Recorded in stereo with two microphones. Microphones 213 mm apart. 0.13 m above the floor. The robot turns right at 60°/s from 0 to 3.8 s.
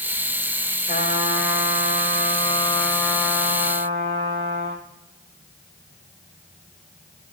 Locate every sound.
0.9 s a trumpet: 45° left, 5 m; by 4.8 s 140° right, 5 m